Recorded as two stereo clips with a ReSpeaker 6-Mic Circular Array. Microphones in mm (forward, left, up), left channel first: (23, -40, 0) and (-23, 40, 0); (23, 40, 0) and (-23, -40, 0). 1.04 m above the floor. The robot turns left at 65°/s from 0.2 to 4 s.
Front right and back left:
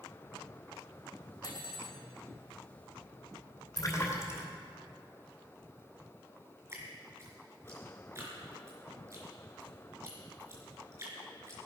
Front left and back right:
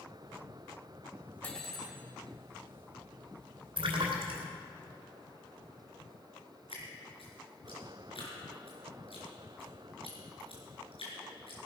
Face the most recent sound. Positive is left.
turn(degrees=60)